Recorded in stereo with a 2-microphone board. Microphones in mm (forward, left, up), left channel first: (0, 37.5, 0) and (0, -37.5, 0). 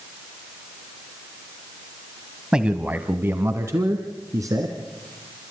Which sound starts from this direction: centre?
A man speaking, at 2.5 s.